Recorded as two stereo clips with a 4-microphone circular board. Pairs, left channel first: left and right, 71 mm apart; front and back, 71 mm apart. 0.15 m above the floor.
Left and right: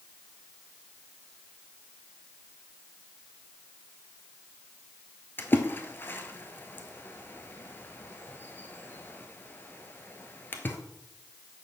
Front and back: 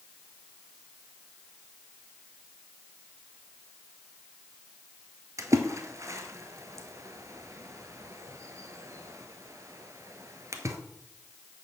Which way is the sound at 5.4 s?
145° left.